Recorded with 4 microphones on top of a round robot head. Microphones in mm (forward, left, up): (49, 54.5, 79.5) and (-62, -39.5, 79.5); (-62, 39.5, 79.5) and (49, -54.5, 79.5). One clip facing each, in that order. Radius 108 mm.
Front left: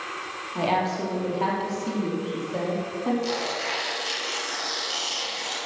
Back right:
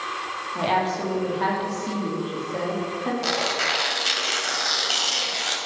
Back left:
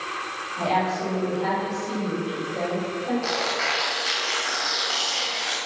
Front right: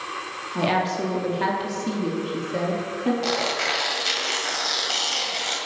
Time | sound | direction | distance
0.6 | a woman speaking | 40° right | 3 m
3.2 | tearing paper | 105° right | 2.5 m